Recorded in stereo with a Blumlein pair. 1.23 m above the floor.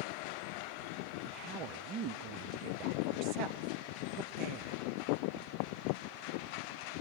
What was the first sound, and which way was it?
A woman speaking, 40° right.